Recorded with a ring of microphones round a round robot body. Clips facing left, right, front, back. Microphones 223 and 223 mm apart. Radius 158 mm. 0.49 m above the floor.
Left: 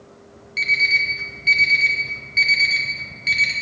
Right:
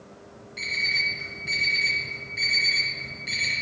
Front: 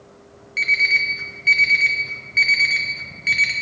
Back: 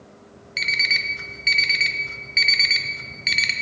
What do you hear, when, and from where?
0.6 s an alarm clock: 130° left, 0.7 m